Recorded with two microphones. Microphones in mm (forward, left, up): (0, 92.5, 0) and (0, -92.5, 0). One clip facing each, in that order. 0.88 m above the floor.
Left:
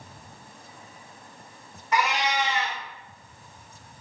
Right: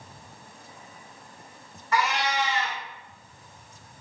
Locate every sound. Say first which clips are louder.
1.9 s a cat meowing: left 1 dB; 15° left (ahead or behind), 0.9 m